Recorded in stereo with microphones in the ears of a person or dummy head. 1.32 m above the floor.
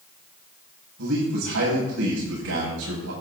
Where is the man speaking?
85° right, 8 m.